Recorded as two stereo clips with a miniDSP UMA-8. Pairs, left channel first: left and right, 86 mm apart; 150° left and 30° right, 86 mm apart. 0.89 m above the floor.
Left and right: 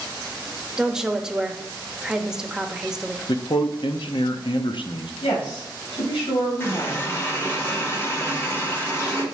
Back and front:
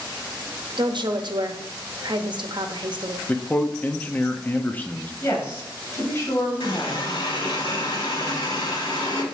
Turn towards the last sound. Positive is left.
turn(degrees=150)